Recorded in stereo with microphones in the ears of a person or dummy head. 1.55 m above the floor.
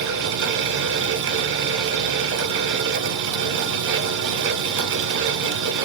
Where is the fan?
60° right (ahead or behind), 0.8 m.